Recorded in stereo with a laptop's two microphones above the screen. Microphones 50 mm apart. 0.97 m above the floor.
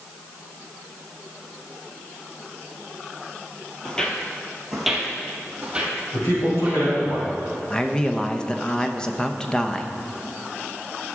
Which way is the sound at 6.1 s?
65° left (ahead or behind).